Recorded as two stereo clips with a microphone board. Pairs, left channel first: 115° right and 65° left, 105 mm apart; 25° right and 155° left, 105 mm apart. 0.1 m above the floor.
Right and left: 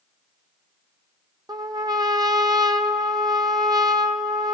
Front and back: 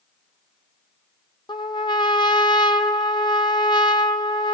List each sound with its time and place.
1.5 s a trumpet: 20° left, 0.9 m